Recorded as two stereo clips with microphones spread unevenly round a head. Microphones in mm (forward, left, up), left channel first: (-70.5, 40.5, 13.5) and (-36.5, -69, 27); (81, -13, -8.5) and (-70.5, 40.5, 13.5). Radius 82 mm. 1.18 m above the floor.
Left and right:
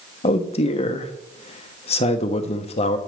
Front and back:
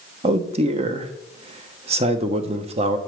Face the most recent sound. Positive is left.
turn(degrees=105)